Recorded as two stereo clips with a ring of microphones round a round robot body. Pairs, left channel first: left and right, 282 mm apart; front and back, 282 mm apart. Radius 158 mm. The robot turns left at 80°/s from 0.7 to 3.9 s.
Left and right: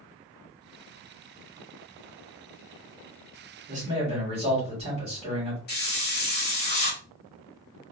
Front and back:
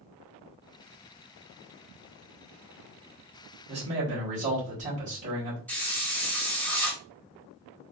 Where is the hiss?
80° left, 1.6 m.